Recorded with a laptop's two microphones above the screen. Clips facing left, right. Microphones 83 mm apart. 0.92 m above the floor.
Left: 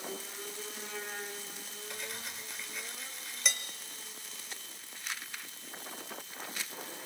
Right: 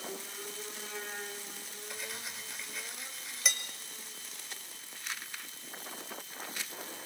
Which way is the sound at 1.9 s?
Centre (ahead or behind).